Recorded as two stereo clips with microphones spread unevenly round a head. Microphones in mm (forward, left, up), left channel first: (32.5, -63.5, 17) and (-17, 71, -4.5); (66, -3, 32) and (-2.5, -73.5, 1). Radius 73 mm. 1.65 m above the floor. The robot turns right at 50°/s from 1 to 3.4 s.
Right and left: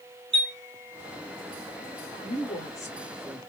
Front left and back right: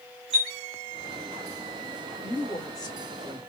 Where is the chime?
100° left, 0.9 m.